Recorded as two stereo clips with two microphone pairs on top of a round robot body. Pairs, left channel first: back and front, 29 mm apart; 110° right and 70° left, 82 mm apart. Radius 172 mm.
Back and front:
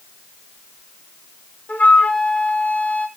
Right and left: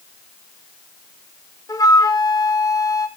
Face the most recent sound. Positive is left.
turn(degrees=-150)